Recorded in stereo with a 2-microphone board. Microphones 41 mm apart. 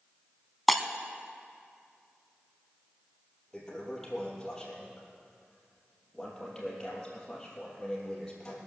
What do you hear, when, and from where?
0.7 s breaking glass: centre (ahead or behind), 0.8 m
3.5 s a toilet flushing: 15° left (ahead or behind), 3 m